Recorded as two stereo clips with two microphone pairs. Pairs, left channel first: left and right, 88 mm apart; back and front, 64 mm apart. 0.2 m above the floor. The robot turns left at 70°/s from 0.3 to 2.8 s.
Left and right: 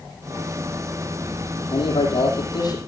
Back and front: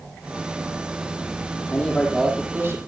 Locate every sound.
1.7 s a man speaking: 120° left, 9.5 m; by 2.8 s 40° left, 9.5 m